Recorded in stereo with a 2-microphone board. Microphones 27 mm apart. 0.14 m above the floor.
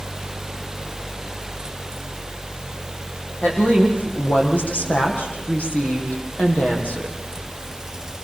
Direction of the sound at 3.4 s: 75° left (ahead or behind).